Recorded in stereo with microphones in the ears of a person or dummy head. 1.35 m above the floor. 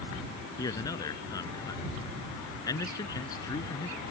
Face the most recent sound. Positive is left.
turn(degrees=20)  # may be behind; listen again after turning